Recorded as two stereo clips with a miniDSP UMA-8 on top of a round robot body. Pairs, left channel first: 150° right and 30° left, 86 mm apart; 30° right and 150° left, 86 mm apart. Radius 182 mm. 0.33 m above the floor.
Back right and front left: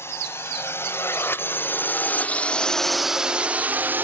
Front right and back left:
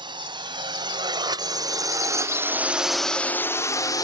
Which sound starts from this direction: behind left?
A drone, at 0.0 s.